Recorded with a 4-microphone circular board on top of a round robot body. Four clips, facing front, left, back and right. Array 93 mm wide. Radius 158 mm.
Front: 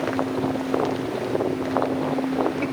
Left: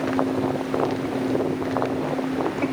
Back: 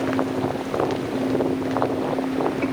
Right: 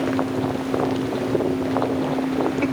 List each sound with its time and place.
Only background noise.